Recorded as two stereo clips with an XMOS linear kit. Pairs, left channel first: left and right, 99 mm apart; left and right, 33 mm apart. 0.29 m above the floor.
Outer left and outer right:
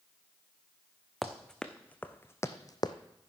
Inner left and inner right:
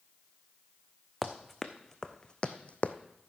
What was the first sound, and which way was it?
Running footsteps, centre (ahead or behind).